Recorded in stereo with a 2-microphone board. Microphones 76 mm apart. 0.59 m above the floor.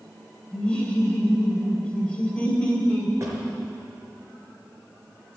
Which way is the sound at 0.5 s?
10° left (ahead or behind).